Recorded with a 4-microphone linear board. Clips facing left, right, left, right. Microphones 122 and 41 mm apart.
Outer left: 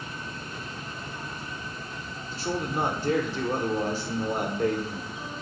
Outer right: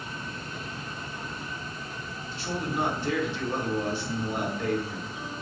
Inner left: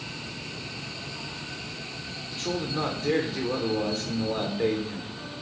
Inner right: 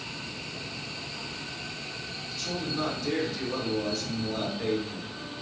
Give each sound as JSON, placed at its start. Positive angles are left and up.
{"t": 2.3, "sound": "a man speaking", "side_deg": 35, "distance_m": 1.0}